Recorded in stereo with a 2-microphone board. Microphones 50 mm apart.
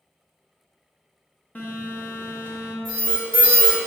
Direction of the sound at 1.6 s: 35° left (ahead or behind).